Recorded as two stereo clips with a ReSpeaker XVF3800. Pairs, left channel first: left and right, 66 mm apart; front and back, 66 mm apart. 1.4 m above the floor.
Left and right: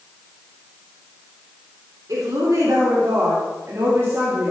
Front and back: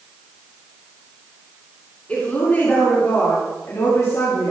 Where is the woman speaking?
70° right, 4.5 m; by 4.5 s 35° right, 3 m.